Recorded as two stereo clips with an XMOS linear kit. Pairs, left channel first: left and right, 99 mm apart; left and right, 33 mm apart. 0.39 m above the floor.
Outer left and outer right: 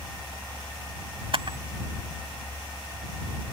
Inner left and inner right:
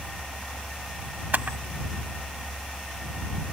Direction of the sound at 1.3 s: 65° right (ahead or behind).